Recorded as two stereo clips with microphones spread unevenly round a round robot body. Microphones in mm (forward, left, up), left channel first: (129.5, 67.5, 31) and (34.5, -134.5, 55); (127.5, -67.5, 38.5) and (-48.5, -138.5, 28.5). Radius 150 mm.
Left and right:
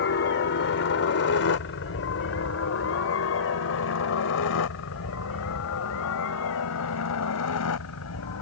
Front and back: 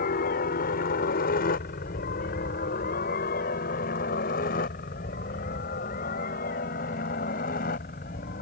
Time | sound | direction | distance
0.0 | a helicopter | 65° left | ?